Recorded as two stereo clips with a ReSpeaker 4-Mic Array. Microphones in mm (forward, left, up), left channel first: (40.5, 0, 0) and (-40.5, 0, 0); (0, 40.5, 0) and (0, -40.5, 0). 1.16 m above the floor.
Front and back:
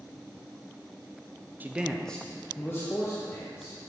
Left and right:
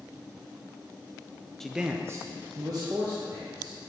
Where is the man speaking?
165° left, 0.6 m; by 3.8 s 55° right, 2 m.